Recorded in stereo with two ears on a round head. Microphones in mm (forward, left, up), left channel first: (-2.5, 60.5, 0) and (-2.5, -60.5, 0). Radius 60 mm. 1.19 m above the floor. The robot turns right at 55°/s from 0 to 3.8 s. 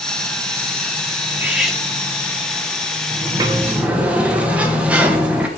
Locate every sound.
1.3 s cutlery clinking: 20° right (ahead or behind), 1.3 m; by 1.8 s 5° left (ahead or behind), 1.3 m
3.1 s a sliding door: 50° right, 1.0 m; by 5.5 s 10° right, 1.0 m